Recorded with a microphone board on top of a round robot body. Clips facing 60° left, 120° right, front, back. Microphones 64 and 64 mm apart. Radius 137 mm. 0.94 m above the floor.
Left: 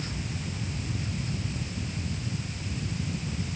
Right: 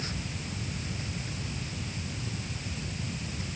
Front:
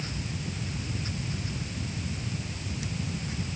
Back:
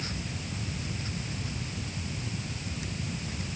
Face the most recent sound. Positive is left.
No sound to turn to.